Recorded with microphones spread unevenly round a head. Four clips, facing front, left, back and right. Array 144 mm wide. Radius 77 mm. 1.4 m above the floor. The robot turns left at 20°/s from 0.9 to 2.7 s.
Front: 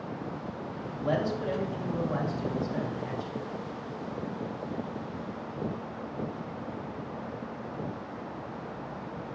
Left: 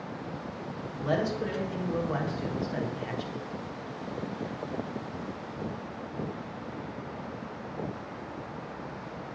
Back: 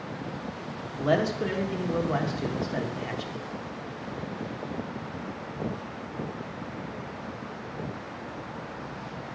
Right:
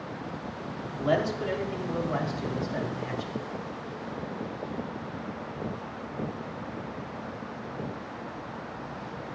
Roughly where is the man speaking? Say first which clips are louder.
Right 2 dB, back 4 dB; behind.